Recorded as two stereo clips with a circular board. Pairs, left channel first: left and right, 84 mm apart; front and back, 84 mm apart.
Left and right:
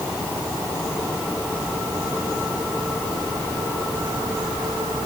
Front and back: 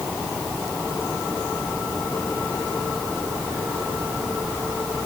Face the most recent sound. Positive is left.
No sound to turn to.